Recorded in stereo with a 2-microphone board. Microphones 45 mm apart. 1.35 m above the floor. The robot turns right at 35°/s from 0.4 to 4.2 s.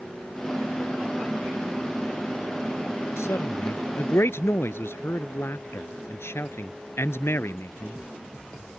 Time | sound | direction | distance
3.2 | a man speaking | 75° left | ?